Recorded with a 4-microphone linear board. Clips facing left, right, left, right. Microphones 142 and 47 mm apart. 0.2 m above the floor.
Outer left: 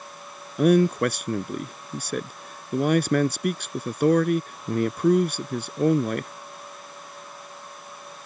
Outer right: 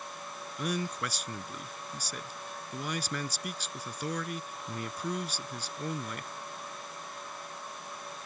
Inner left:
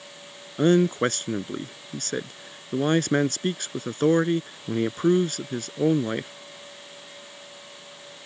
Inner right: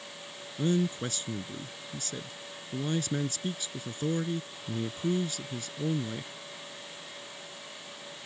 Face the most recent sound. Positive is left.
turn(degrees=60)  # may be behind; listen again after turning